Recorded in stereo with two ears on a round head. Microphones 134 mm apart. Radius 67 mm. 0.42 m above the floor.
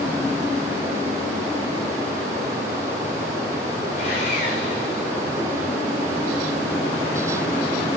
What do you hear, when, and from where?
4.0 s sawing: 60° left (ahead or behind), 8.5 m